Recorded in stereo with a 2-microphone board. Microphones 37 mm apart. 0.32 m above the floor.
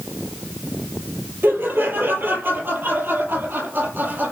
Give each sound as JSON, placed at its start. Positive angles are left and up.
{"t": 1.4, "sound": "laughter", "side_deg": -60, "distance_m": 9.0}